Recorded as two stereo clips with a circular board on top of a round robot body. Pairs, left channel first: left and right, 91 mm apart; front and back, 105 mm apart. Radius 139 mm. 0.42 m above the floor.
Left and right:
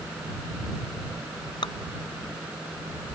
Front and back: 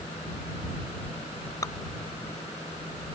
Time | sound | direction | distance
1.6 | dripping | 60° left | ?